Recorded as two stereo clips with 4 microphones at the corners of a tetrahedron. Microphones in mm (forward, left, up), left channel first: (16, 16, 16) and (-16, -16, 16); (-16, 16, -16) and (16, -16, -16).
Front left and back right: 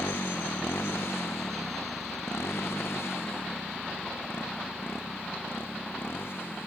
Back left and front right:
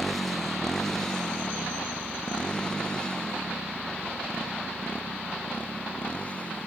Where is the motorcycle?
50° left; by 6.7 s 75° left.